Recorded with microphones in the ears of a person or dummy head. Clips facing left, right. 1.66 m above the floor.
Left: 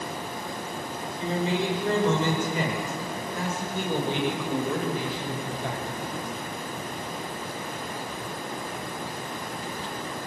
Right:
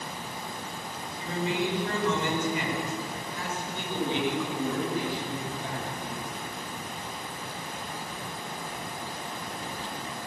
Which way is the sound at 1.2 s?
30° left (ahead or behind).